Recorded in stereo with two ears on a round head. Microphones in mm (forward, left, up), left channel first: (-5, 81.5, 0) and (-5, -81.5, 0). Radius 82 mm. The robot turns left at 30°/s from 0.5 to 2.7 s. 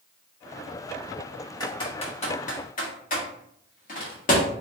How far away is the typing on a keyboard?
About 1.3 m.